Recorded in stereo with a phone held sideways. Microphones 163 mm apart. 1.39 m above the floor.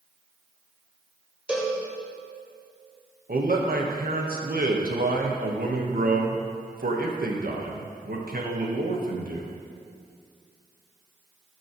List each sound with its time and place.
1.5 s a cowbell: 5° right (ahead or behind), 1.9 m
3.3 s a man speaking: 65° right (ahead or behind), 1.3 m